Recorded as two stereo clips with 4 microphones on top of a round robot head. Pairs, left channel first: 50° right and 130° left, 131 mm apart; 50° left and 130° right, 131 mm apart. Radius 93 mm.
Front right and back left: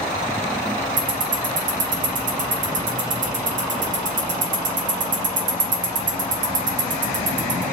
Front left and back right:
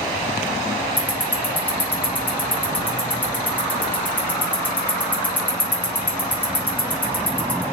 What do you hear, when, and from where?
1.0 s ticking: 125° left, 0.8 m